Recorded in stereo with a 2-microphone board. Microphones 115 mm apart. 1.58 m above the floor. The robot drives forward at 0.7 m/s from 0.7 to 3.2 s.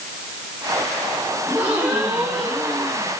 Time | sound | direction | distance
1.4 | a gasp | 15° right (ahead or behind) | 3.5 m